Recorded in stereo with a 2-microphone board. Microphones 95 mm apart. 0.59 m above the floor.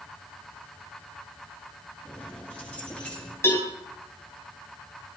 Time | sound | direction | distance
2.0 | keys jangling | 15° left (ahead or behind) | 6.5 m
3.4 | a cowbell | 25° left (ahead or behind) | 3.5 m